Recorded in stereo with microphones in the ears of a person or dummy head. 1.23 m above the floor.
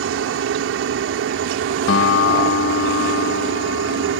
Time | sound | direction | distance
0.0 | a helicopter | 65° right (ahead or behind) | ?
1.9 | a guitar | 65° left (ahead or behind) | ?